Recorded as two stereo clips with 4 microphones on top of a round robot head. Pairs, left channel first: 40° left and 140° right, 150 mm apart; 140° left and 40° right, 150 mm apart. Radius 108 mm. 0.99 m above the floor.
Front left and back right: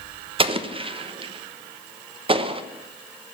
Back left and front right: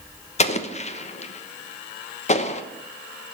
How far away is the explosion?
About 1.1 m.